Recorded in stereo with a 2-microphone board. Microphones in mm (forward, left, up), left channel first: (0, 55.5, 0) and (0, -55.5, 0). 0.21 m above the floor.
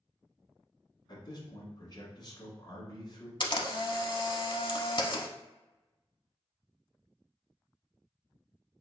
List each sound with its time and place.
1.1 s a man speaking: 45° left (ahead or behind), 1.5 m
3.4 s a camera shutter: 50° left (ahead or behind), 0.6 m